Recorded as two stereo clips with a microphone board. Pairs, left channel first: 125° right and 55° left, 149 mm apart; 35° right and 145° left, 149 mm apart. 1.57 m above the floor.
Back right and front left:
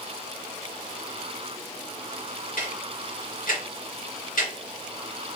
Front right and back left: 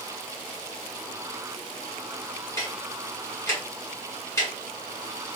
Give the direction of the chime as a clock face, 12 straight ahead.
I don't hear a chime.